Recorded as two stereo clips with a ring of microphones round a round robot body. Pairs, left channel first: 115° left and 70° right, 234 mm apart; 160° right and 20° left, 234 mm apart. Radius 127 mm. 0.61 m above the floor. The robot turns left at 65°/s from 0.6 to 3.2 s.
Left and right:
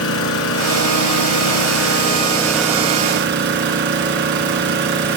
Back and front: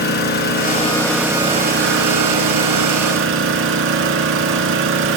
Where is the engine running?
150° left, 1.9 m; by 5.2 s 20° right, 1.9 m.